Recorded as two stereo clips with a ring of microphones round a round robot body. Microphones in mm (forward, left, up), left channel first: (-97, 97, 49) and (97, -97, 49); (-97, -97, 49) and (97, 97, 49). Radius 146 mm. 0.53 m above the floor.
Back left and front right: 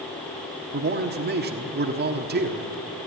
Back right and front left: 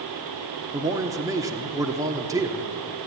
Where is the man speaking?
25° right, 1.4 m.